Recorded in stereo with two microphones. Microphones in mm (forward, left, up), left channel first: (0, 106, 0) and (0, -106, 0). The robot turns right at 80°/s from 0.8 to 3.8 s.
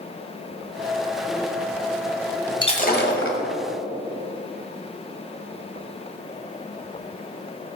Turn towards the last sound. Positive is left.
turn(degrees=120)